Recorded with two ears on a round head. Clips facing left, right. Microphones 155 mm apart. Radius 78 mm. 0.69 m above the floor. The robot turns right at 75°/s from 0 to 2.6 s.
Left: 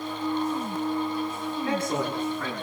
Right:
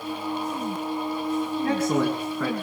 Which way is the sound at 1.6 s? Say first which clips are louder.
Right 4 dB; 150° right.